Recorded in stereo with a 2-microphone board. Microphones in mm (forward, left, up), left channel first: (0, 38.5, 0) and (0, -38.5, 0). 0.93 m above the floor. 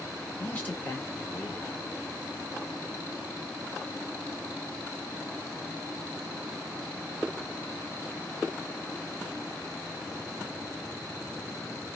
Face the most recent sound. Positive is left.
turn(degrees=25)  # may be behind; listen again after turning